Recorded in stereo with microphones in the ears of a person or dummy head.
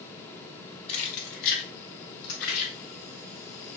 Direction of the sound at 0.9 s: 30° left (ahead or behind).